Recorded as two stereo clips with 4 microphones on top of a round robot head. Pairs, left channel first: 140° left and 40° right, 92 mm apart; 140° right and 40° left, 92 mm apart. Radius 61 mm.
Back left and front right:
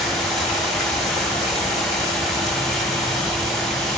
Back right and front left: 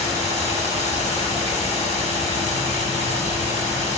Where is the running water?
55° left, 7.5 m.